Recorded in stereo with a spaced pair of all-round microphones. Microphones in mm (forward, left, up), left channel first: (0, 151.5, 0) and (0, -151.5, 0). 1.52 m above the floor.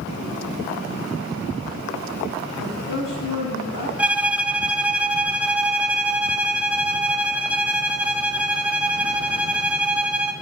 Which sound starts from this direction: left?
A woman speaking, at 2.6 s.